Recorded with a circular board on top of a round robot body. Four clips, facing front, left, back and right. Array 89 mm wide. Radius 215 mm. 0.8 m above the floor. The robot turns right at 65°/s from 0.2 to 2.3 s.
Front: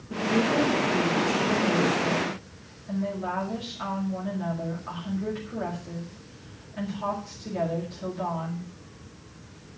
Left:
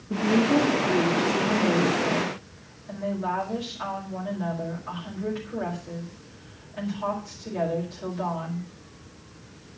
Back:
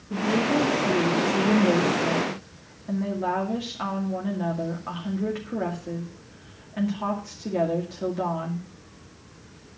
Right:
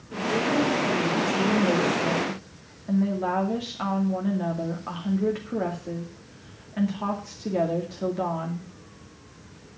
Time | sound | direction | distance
0.1 | a woman speaking | 90° left | 2.5 m